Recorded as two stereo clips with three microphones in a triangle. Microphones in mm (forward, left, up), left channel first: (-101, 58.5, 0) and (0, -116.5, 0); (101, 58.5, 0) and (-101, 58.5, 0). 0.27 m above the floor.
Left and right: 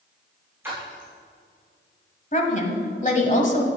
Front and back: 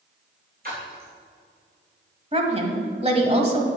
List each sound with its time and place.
0.6 s a splash: 140° right, 3.5 m
2.3 s a woman speaking: 140° left, 1.5 m